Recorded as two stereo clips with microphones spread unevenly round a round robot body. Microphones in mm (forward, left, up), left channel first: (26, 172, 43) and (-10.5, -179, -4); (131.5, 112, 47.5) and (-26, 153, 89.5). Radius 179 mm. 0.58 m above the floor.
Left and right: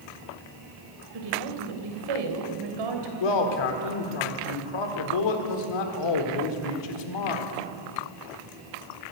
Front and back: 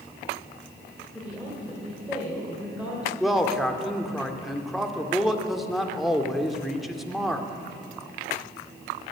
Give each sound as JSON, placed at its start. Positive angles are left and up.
{"t": 1.1, "sound": "a woman speaking", "azimuth_deg": -105, "distance_m": 3.0}
{"t": 3.2, "sound": "a man speaking", "azimuth_deg": 70, "distance_m": 1.8}